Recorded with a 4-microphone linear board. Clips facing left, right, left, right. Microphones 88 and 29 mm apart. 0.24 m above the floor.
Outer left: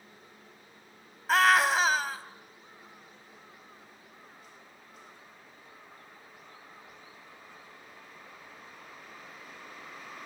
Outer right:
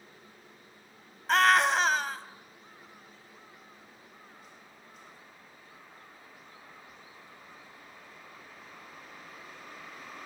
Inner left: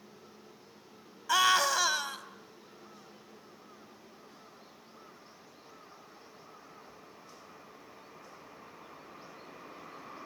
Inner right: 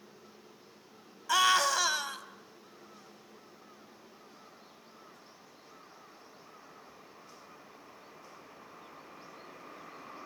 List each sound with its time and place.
1.3 s a scream: 5° left (ahead or behind), 1.4 m